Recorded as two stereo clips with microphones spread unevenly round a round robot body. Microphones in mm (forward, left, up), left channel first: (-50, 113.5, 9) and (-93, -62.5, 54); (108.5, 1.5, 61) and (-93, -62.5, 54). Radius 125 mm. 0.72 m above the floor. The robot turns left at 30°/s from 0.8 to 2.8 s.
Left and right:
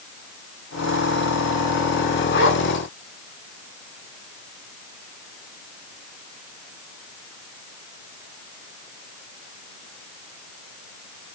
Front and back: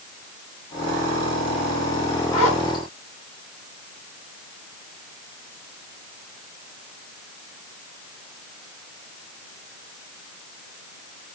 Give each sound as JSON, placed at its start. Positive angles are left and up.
{"t": 2.3, "sound": "a zipper", "azimuth_deg": 85, "distance_m": 7.0}